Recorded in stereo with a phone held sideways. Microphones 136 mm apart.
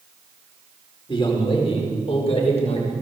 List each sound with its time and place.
1.1 s a man speaking: 40° left (ahead or behind), 5 m; by 2.9 s 50° left (ahead or behind), 6 m